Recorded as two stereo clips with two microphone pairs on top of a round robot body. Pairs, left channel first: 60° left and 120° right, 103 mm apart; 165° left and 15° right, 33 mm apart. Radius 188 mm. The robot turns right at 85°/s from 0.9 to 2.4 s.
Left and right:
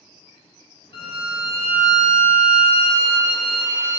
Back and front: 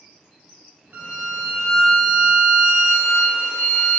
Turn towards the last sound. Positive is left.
turn(degrees=150)